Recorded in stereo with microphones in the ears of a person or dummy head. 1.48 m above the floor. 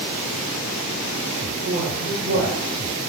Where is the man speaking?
60° right (ahead or behind), 1.8 m.